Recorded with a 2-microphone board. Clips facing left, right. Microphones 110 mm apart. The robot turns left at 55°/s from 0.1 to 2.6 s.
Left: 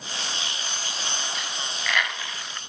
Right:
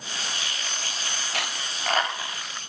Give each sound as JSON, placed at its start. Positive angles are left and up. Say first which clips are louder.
{"t": 1.3, "sound": "a dropped coin", "louder": "right 1 dB", "side_deg": -70, "distance_m": 1.2}